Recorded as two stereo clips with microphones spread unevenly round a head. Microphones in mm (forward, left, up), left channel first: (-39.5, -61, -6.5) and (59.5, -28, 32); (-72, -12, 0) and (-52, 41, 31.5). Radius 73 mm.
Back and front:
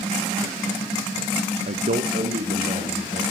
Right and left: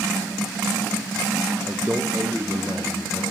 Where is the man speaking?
10° right, 0.8 m.